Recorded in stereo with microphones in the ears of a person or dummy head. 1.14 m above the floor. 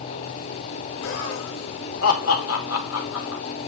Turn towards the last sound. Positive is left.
turn(degrees=80)